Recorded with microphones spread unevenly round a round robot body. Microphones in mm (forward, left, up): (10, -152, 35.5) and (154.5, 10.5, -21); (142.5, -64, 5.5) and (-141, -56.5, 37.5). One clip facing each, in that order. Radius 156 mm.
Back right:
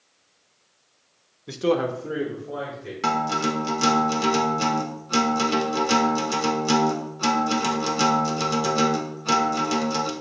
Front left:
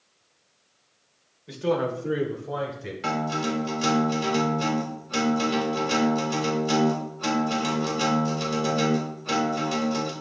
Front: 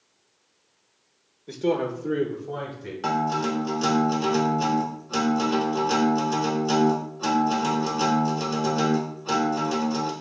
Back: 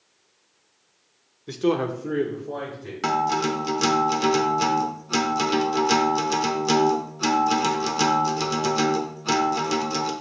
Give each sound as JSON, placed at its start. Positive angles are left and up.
{"t": 1.5, "sound": "a man speaking", "azimuth_deg": -120, "distance_m": 0.9}
{"t": 3.0, "sound": "a guitar", "azimuth_deg": -145, "distance_m": 1.0}